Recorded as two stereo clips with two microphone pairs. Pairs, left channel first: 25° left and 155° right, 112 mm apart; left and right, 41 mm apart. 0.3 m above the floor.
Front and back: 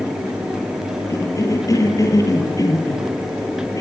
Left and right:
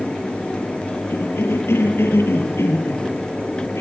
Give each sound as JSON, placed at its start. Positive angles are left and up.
{"t": 1.1, "sound": "a cough", "azimuth_deg": 85, "distance_m": 7.5}